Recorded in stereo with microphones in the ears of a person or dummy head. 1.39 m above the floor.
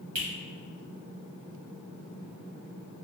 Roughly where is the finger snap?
Right.